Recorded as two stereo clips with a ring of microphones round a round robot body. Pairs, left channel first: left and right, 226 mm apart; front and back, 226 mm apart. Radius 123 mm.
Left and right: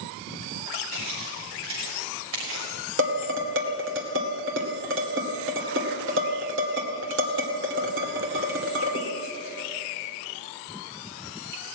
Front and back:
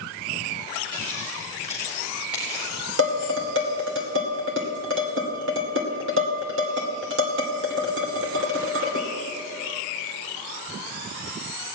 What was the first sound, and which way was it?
Footsteps, 110° right.